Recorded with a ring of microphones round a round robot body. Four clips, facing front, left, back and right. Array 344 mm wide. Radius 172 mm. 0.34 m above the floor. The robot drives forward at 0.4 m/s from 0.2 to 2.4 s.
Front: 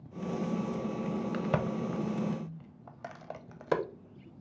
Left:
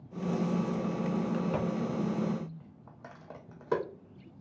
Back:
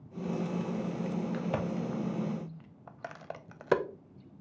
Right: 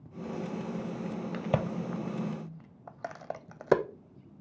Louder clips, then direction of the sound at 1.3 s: Even, front 2 dB; 60° right.